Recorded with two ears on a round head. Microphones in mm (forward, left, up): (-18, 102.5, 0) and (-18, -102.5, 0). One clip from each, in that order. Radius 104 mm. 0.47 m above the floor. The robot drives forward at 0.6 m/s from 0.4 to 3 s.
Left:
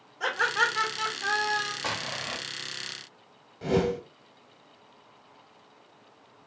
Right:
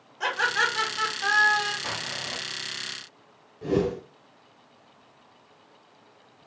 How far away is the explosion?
About 0.9 m.